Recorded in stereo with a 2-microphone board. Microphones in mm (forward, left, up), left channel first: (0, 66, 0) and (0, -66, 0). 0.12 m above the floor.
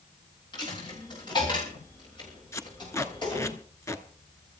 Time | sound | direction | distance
0.5 | a dropped coin | 35° left (ahead or behind) | 6 m
2.5 | tape being pulled | 20° left (ahead or behind) | 1.0 m